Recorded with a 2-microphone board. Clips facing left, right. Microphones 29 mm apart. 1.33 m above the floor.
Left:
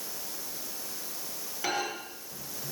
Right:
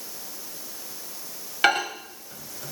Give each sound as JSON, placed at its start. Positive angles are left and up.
{"t": 1.6, "sound": "a microwave", "side_deg": -65, "distance_m": 0.8}